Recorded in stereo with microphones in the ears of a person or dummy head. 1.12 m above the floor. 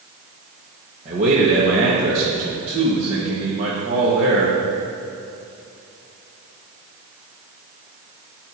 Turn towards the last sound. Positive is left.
turn(degrees=-35)  # may be behind; listen again after turning